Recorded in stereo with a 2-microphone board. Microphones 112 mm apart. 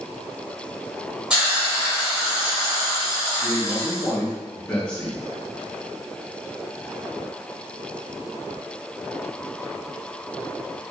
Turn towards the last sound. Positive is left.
turn(degrees=10)  # may be behind; listen again after turning